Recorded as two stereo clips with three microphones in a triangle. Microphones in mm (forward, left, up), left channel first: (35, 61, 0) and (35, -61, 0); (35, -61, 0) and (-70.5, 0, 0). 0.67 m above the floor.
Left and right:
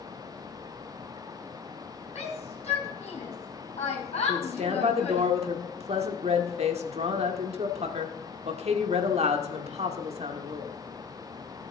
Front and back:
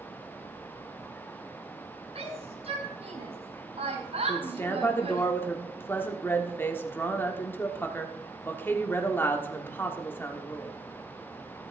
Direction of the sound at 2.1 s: 115° left.